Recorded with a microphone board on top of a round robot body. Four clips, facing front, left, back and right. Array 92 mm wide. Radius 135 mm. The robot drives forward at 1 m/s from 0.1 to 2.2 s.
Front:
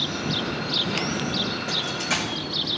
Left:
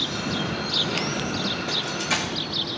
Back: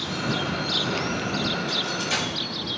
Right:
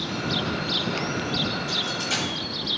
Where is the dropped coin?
40° left, 3 m; by 2.3 s 45° left, 2.5 m.